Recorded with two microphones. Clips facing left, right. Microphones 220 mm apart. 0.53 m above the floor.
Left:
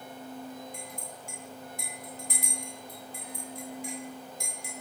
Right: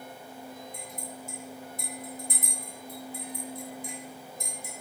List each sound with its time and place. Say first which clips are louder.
0.7 s a clink: right 2 dB; 80° left, 2.5 m